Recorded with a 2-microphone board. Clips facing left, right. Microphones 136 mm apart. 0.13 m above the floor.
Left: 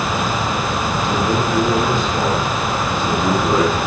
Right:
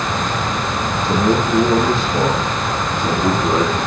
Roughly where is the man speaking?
Right.